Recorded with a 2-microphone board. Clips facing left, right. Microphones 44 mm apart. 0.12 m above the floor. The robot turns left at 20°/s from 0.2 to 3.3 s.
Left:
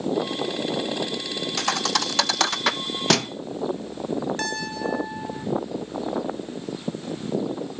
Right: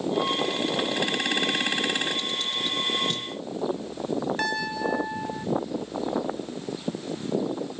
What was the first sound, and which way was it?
A thud, 65° left (ahead or behind).